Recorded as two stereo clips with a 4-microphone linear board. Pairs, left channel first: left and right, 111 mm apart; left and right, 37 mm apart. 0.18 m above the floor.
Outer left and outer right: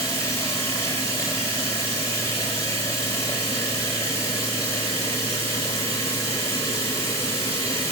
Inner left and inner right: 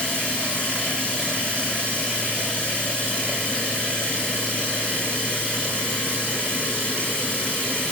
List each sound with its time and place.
0.0 s running water: 25° left (ahead or behind), 6.5 m